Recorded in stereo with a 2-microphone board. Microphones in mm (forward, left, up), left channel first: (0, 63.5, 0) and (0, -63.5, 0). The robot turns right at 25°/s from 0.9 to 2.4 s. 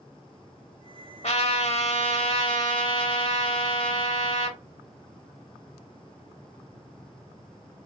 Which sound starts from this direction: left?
A trumpet, at 1.2 s.